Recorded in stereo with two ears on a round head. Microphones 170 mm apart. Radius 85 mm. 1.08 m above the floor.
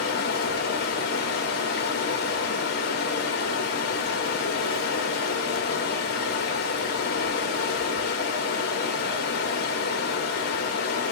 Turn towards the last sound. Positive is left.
turn(degrees=55)  # may be behind; listen again after turning